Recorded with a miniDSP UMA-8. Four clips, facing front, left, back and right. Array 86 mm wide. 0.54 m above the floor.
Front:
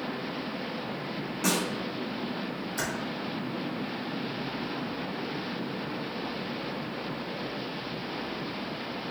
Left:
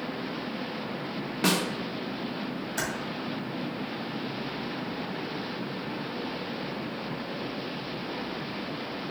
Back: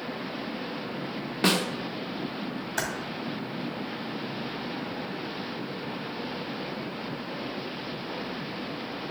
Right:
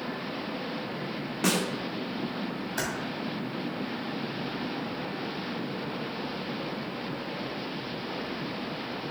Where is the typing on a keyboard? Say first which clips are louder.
Even, back 3 dB; 175° right, 2.0 m.